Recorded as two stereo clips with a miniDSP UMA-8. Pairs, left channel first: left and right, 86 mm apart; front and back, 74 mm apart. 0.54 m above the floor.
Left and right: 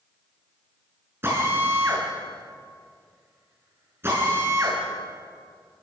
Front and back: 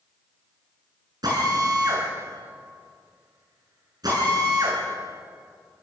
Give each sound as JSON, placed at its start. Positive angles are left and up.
{"t": 1.2, "sound": "a drill", "azimuth_deg": -150, "distance_m": 7.0}